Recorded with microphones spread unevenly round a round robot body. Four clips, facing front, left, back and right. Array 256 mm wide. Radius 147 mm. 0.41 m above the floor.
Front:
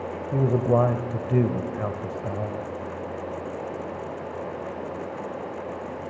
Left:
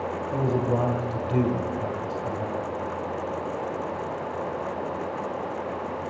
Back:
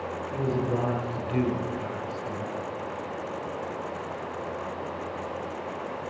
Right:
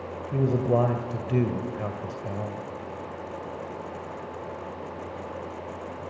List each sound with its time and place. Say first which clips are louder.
0.3 s a man speaking: right 2 dB, front 7 dB; 20° right, 1.8 m